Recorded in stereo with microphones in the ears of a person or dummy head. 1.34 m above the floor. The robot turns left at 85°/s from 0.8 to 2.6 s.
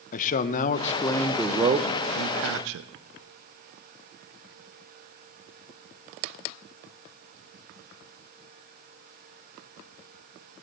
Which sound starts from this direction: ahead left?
A man speaking, at 0.1 s.